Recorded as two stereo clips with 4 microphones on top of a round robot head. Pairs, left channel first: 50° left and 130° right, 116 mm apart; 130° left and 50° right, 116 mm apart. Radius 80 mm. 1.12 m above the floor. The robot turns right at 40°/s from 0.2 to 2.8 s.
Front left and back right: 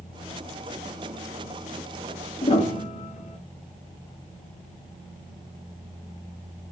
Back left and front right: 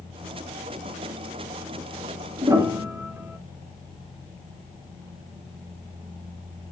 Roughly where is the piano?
Ahead.